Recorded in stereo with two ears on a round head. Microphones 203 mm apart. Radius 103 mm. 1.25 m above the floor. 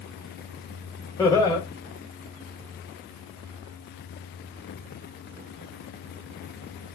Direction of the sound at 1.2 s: 15° left (ahead or behind).